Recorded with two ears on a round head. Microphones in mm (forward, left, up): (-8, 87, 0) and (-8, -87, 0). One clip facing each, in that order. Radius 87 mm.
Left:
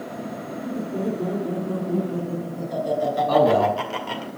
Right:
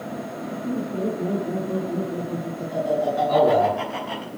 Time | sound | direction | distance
0.6 | laughter | 80° left | 6 m
3.3 | a man speaking | 75° left (ahead or behind) | 4.5 m